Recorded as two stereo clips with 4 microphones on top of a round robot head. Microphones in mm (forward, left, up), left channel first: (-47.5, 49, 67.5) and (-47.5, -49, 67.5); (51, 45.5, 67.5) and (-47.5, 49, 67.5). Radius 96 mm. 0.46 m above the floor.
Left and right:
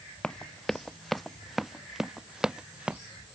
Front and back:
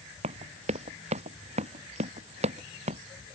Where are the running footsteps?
170° left; by 3.0 s 170° right.